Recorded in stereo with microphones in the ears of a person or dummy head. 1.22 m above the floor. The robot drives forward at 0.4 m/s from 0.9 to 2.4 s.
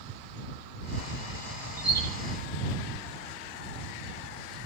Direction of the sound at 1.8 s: 20° left (ahead or behind).